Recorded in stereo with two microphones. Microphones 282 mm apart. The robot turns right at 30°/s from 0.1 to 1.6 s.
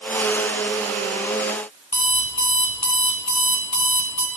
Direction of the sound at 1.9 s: 75° left (ahead or behind).